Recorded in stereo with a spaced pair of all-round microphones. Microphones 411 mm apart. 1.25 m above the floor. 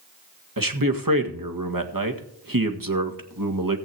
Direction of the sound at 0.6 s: 55° right (ahead or behind).